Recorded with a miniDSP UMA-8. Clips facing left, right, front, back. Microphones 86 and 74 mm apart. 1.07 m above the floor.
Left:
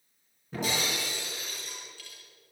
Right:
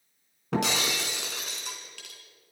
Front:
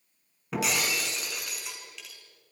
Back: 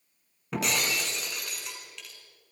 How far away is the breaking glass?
About 4.5 m.